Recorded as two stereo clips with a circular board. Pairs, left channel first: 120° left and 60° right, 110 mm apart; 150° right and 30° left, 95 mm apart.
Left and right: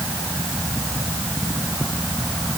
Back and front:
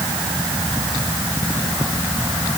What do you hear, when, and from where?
Only background noise.